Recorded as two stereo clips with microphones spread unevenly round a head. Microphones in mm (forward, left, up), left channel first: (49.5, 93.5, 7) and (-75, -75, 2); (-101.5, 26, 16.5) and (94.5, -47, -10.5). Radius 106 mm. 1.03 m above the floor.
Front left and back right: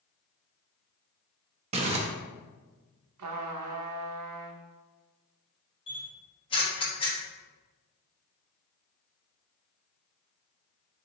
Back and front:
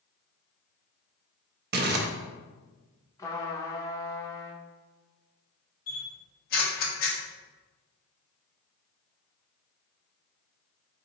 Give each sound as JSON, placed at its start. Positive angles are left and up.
{"t": 1.7, "sound": "crumpling", "azimuth_deg": -65, "distance_m": 0.5}
{"t": 3.2, "sound": "a trumpet", "azimuth_deg": -125, "distance_m": 0.6}
{"t": 5.9, "sound": "a camera shutter", "azimuth_deg": 115, "distance_m": 0.9}